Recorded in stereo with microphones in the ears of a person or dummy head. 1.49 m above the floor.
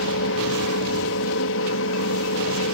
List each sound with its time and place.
0.0 s a fan: 65° left (ahead or behind)